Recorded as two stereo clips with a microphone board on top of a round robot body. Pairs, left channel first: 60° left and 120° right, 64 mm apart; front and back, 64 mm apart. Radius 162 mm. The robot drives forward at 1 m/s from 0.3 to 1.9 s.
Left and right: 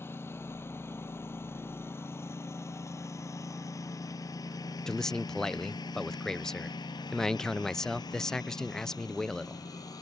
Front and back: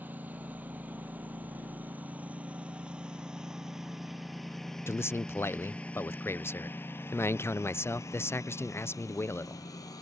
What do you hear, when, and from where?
0.0 s a lawn mower: 115° left; by 10.0 s 30° left
4.9 s a man speaking: 20° right